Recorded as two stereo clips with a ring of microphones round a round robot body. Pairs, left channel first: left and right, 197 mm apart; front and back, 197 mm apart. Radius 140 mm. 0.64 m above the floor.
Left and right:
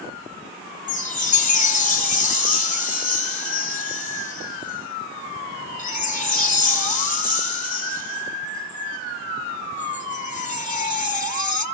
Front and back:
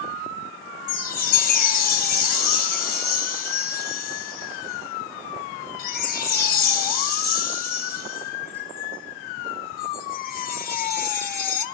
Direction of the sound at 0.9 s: 40° left.